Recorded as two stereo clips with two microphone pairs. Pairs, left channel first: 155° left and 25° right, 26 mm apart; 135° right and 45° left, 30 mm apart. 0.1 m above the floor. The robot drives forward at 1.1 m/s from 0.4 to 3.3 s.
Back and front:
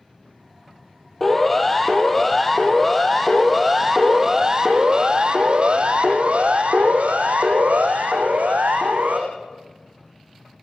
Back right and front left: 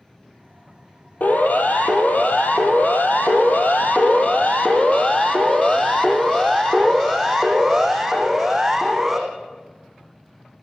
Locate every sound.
1.2 s a siren: 125° right, 2.5 m; by 9.2 s 40° right, 6 m